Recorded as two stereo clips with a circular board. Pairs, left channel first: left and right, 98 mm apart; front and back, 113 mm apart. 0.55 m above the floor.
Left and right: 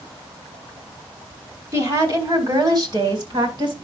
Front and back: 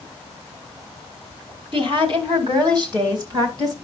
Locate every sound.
1.7 s a woman speaking: 145° right, 3 m; by 3.8 s 125° right, 4 m